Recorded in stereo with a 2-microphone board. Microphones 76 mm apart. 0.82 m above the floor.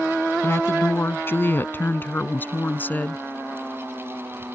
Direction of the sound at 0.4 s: 30° left (ahead or behind).